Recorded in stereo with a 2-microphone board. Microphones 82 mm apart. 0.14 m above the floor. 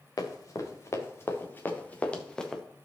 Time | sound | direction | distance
0.2 | running footsteps | 45° left (ahead or behind) | 2.5 m